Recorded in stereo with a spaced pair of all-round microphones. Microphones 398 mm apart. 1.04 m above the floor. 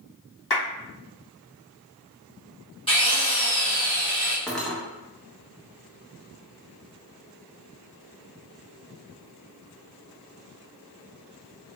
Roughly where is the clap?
Left.